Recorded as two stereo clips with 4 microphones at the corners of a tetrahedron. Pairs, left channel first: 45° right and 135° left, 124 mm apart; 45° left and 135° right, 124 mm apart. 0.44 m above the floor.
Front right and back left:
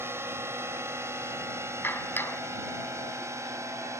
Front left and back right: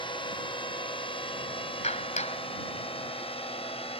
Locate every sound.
0.0 s a drone: 70° left
1.8 s a clap: 25° left